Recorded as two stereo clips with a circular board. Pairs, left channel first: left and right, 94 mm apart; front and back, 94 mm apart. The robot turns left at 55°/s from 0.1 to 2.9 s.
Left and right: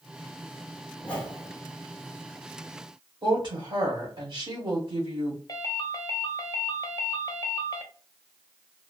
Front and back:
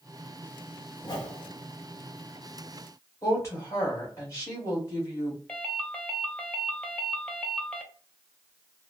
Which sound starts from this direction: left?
A ringtone, at 5.5 s.